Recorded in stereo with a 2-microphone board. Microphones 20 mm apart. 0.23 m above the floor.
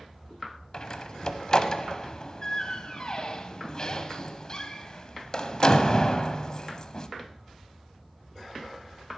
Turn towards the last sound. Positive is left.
turn(degrees=35)  # may be behind; listen again after turning